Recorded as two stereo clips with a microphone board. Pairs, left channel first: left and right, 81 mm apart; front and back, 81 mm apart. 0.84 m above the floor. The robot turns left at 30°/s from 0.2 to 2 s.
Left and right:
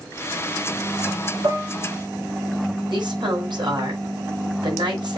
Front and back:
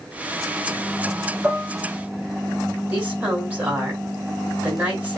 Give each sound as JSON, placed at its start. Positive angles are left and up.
{"t": 1.4, "sound": "dishes clattering", "azimuth_deg": -110, "distance_m": 6.0}
{"t": 2.9, "sound": "a woman speaking", "azimuth_deg": -110, "distance_m": 6.5}